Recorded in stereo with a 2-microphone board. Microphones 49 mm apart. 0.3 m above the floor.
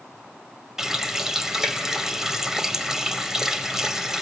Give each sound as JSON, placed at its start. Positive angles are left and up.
{"t": 0.8, "sound": "a running tap", "side_deg": -10, "distance_m": 1.0}